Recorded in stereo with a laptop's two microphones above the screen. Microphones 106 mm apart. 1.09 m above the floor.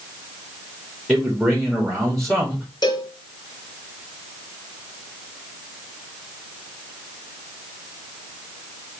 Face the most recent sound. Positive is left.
turn(degrees=45)  # may be behind; listen again after turning